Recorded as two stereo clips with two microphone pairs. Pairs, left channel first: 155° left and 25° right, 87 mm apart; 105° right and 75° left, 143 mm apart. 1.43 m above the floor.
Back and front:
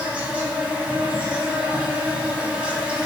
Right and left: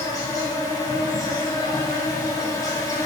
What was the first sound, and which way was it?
An insect, 85° right.